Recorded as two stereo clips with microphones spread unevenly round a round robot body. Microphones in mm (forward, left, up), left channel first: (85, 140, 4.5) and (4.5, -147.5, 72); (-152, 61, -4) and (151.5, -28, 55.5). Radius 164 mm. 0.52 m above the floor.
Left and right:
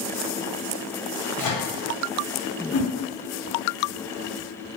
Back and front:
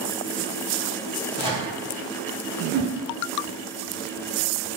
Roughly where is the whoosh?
Ahead left.